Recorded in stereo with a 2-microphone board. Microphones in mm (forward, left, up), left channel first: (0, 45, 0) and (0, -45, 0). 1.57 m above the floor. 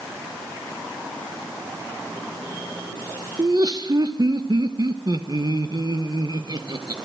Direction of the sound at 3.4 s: 45° right (ahead or behind).